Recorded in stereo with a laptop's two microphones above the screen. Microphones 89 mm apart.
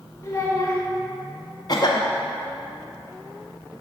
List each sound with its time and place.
0.2 s a child speaking: 35° left (ahead or behind), 1.6 m
1.7 s a cough: 45° left (ahead or behind), 0.7 m